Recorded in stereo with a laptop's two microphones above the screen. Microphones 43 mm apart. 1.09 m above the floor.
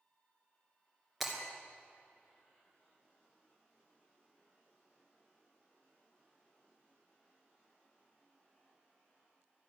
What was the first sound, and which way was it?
Breaking glass, centre (ahead or behind).